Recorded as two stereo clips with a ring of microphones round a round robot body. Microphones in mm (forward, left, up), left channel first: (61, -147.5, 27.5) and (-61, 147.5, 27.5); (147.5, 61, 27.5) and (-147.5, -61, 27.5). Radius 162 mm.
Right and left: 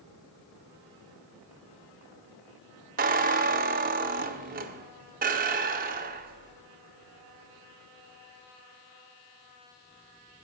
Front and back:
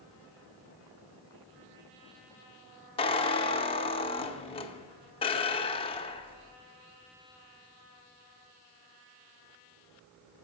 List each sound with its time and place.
3.0 s a squeak: 80° left, 0.6 m